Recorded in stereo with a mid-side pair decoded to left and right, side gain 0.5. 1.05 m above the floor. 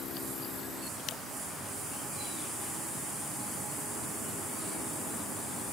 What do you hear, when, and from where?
Only background noise.